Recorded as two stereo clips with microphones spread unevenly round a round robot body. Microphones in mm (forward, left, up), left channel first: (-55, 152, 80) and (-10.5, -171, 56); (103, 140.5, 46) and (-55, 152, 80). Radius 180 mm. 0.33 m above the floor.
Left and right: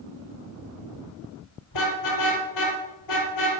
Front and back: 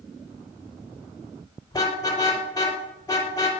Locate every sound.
1.7 s a car horn: 60° left, 4.5 m